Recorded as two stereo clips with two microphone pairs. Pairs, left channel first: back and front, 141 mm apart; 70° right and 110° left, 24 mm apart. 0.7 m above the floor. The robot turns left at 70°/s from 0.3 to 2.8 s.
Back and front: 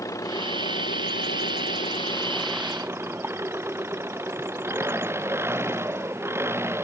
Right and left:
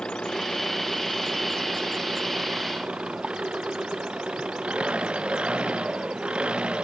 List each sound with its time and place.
0.0 s an engine running: 110° right; by 6.8 s 75° left